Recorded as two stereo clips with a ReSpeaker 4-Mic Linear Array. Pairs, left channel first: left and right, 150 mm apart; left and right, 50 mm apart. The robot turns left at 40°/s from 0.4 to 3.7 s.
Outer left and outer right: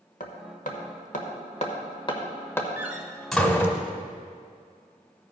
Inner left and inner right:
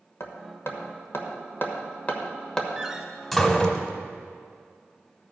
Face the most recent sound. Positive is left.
turn(degrees=15)  # may be behind; listen again after turning